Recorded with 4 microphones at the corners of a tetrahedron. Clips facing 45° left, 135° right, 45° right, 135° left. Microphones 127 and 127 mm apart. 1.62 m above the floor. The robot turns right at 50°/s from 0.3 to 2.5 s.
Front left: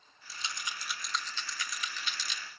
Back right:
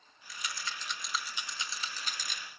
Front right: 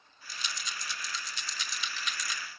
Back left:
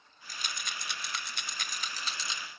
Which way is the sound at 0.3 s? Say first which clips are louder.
Even, even; 95° left.